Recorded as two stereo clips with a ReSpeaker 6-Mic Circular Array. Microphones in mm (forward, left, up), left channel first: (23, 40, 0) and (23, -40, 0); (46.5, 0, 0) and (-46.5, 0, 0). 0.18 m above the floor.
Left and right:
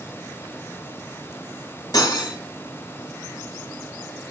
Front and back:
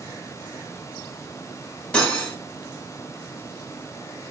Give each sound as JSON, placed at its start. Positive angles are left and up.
{"t": 1.9, "sound": "cutlery clinking", "azimuth_deg": 75, "distance_m": 1.2}